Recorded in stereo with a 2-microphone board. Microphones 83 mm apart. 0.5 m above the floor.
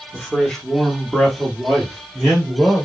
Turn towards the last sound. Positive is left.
turn(degrees=-5)  # may be behind; listen again after turning